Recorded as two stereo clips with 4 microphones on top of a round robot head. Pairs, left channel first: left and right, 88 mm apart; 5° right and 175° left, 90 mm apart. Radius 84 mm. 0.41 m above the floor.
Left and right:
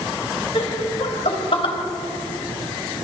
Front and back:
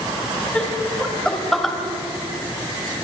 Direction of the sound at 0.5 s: 70° left.